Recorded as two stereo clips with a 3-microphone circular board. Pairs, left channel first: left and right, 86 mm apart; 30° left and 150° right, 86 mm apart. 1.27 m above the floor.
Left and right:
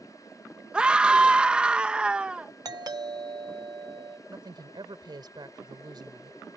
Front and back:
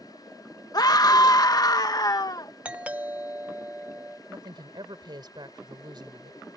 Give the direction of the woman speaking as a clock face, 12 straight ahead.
4 o'clock.